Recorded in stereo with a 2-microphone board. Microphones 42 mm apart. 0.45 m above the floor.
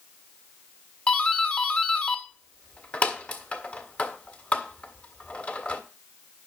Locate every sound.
1.1 s a doorbell: 30° left (ahead or behind), 1.6 m